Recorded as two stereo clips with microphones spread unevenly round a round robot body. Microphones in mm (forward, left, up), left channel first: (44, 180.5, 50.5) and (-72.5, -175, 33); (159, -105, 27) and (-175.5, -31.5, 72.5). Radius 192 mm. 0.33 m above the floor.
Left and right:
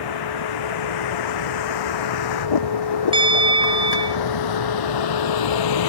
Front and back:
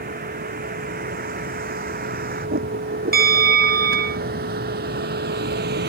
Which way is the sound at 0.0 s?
100° left.